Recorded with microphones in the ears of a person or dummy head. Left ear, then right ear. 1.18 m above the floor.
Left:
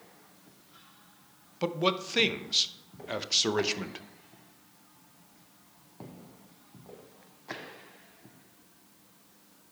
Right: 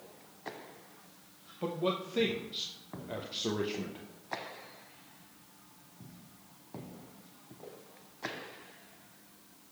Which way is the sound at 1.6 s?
60° left (ahead or behind).